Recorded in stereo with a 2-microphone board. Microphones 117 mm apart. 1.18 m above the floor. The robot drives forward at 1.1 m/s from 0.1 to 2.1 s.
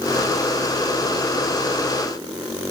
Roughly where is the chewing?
No chewing in this recording.